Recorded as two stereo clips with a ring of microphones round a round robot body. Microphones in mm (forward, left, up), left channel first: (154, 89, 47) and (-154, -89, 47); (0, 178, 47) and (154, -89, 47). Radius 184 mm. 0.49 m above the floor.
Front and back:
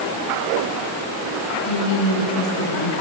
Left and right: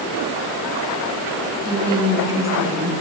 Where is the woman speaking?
15° left, 6.5 m; by 2.9 s 25° left, 6 m.